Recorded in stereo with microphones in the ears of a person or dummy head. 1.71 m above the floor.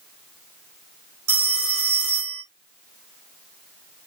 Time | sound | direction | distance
1.3 | a phone ringing | 55° right (ahead or behind) | 1.3 m